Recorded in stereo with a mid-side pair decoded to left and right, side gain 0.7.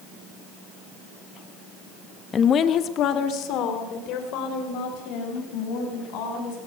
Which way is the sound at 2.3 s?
30° left.